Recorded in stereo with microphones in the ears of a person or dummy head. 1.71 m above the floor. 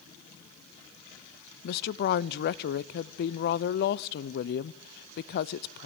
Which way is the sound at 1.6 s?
55° left (ahead or behind).